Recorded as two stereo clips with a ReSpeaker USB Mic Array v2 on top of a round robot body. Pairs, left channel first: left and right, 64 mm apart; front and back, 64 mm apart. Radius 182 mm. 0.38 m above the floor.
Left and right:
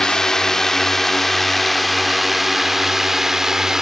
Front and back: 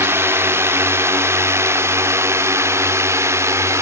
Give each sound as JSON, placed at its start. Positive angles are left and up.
{"t": 0.0, "sound": "a drone", "azimuth_deg": 165}